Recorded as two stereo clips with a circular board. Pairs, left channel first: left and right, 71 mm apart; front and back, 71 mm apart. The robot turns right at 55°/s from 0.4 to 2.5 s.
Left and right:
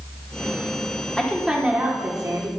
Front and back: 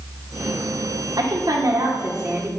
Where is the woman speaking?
170° left, 2 m; by 2.5 s 120° right, 2 m.